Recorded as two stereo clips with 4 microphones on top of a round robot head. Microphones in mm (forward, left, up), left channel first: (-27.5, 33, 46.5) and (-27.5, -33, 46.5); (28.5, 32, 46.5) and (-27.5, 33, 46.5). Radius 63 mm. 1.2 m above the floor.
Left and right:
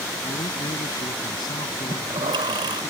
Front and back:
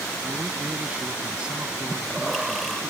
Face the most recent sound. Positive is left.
turn(degrees=-90)